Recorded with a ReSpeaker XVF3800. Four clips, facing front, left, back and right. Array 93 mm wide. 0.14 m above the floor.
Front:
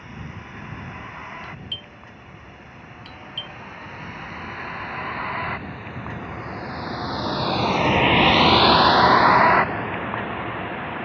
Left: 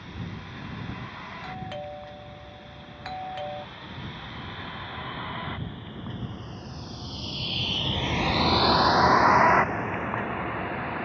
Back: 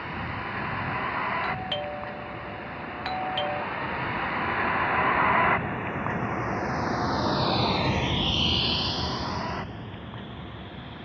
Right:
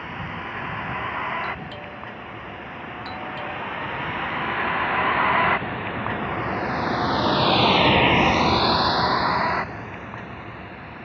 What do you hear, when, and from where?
0.0 s a vehicle: 130° right; by 11.1 s 35° left
1.4 s a doorbell: 165° left